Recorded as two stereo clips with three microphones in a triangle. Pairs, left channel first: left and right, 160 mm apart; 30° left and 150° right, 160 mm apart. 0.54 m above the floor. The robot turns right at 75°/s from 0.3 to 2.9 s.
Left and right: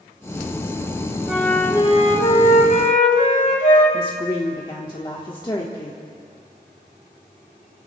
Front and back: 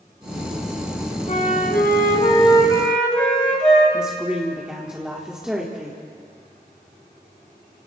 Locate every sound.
1.3 s a flute: 10° right, 4 m; by 3.8 s 115° left, 4 m
3.9 s a woman speaking: 130° left, 1.5 m